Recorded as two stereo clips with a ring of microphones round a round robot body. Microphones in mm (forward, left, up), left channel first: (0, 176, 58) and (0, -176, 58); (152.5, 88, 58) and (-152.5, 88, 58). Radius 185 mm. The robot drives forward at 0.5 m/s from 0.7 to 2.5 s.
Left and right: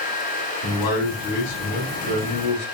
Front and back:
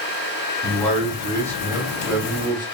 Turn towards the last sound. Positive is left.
turn(degrees=105)